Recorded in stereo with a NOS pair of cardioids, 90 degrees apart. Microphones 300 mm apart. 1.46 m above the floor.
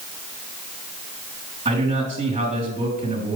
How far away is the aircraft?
I don't hear an aircraft.